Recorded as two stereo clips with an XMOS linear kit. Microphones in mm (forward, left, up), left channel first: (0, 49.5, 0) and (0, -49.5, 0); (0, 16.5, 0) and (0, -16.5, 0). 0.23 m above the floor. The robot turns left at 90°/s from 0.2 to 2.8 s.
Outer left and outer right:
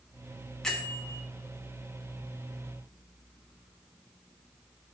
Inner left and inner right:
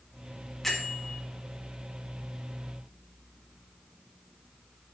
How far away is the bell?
About 1.8 m.